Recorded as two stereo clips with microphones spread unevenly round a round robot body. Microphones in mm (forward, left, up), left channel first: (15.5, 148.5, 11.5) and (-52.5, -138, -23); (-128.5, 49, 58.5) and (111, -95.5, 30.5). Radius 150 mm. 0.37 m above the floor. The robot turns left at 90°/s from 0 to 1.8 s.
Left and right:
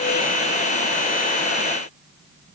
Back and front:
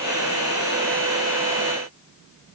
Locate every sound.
Only background noise.